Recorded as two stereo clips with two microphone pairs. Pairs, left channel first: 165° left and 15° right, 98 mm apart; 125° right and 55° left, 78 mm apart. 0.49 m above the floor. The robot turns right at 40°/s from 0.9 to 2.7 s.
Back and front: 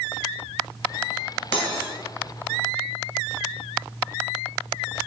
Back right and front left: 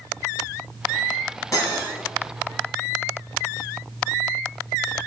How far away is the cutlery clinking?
About 2.5 m.